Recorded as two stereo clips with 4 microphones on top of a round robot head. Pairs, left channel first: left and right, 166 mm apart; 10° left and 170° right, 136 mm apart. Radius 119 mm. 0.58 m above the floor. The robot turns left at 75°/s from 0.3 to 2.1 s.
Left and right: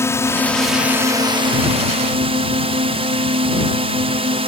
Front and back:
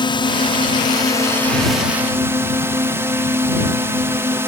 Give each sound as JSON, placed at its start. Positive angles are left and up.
{"t": 0.0, "sound": "a drone", "azimuth_deg": 30}